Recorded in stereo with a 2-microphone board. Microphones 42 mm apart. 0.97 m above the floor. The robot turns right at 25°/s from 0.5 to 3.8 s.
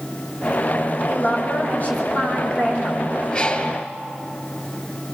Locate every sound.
1.1 s a woman speaking: 125° left, 6 m; by 3.1 s 175° left, 6 m
3.3 s a bird: 30° left (ahead or behind), 3 m; by 3.8 s 40° left (ahead or behind), 3 m